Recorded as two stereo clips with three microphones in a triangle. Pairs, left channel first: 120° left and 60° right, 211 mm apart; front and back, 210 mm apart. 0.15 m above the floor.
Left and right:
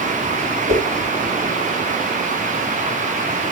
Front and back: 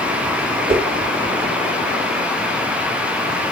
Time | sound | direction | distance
0.7 | a whoosh | 115° right | 3 m